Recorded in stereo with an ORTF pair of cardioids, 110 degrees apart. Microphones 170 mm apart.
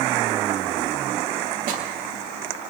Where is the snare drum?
70° right, 3 m.